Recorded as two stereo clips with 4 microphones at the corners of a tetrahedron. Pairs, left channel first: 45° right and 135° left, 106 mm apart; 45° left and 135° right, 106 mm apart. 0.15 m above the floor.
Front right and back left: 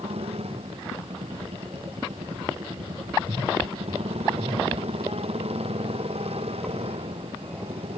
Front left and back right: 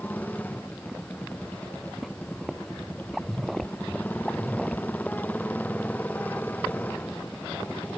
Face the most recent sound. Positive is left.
turn(degrees=120)